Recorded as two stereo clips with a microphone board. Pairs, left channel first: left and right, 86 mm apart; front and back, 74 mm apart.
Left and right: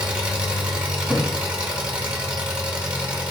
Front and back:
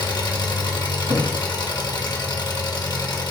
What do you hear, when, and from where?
0.0 s an engine running: 15° right, 1.0 m
1.1 s a thud: 170° right, 1.8 m